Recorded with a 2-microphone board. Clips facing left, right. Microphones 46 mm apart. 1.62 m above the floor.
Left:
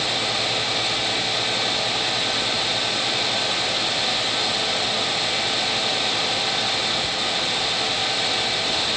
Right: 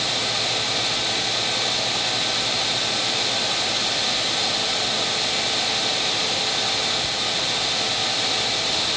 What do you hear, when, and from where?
Only background noise.